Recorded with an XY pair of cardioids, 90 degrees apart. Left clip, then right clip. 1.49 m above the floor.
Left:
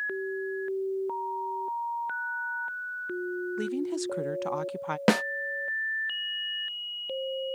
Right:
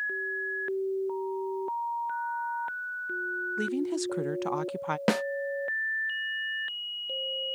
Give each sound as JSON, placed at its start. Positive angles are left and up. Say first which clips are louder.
{"t": 3.6, "sound": "a woman speaking", "louder": "right 1 dB", "azimuth_deg": -10}
{"t": 5.1, "sound": "a snare drum", "louder": "left 3 dB", "azimuth_deg": 30}